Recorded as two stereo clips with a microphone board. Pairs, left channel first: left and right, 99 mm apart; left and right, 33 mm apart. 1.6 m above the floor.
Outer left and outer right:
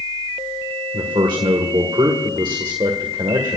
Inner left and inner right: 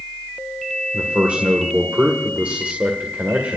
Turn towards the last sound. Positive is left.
turn(degrees=-55)  # may be behind; listen again after turning